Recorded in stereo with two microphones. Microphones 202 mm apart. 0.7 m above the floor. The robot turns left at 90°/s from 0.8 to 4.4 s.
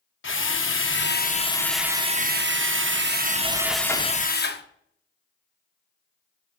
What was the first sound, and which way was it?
A drill, 85° left.